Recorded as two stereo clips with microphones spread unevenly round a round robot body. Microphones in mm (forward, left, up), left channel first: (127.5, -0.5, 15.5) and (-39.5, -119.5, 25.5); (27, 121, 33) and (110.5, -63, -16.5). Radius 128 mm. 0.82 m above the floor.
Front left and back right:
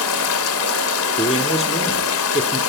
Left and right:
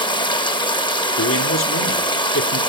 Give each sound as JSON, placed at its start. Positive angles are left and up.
{"t": 0.0, "sound": "running water", "azimuth_deg": 45, "distance_m": 2.5}
{"t": 1.2, "sound": "a man speaking", "azimuth_deg": 100, "distance_m": 2.5}